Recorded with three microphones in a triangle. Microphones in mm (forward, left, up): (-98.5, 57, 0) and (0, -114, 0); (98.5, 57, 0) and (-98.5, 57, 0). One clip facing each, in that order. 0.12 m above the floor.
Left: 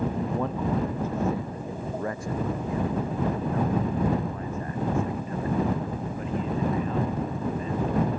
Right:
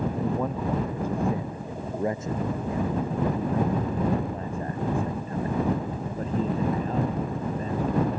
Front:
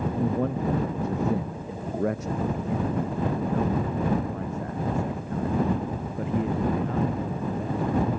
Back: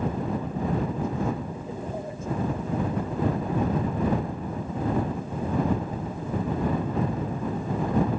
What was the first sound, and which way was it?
A man speaking, 25° left.